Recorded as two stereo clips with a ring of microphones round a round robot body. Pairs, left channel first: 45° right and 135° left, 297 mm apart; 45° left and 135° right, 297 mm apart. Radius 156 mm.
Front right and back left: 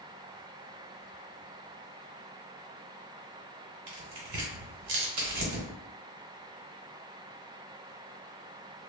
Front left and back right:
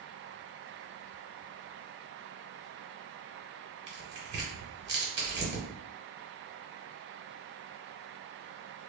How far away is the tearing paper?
About 1.0 m.